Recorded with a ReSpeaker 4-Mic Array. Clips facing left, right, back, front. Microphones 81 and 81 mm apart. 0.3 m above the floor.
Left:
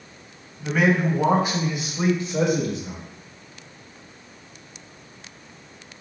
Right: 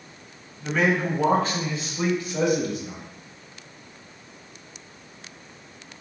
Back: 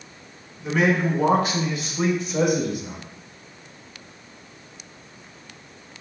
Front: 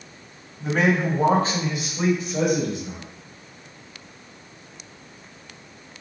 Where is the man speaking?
10° left, 1.3 m; by 3.0 s 125° left, 1.0 m.